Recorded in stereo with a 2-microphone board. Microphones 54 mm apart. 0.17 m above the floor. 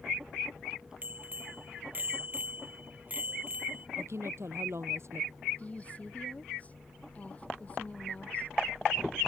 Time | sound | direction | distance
1.0 | a bicycle bell | 35° right (ahead or behind) | ?
4.0 | a woman speaking | 60° right (ahead or behind) | ?
5.6 | a woman speaking | 30° left (ahead or behind) | ?